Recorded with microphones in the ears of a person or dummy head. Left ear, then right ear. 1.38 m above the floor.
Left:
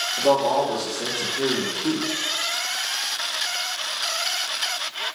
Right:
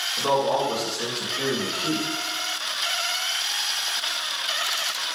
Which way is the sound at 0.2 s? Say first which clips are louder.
Left 3 dB; 35° right (ahead or behind).